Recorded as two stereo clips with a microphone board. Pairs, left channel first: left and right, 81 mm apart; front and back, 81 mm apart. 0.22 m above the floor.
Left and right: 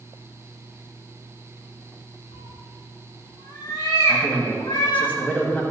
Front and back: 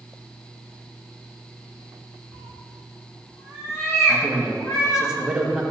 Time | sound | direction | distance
2.3 | a cat meowing | 90° left | 1.5 m
4.1 | a man speaking | 120° left | 1.6 m